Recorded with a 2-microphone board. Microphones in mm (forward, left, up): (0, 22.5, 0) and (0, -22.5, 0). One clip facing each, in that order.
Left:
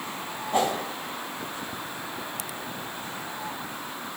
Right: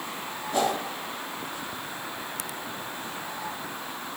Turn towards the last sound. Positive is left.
turn(degrees=40)  # may be behind; listen again after turning